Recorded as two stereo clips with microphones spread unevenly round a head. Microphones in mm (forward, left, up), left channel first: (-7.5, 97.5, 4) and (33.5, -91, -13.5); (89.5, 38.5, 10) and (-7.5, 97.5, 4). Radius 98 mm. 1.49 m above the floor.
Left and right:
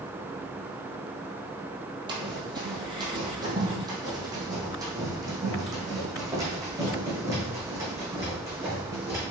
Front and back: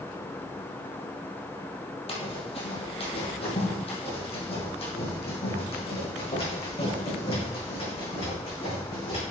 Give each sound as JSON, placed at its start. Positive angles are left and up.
{"t": 2.1, "sound": "running footsteps", "azimuth_deg": -10, "distance_m": 3.0}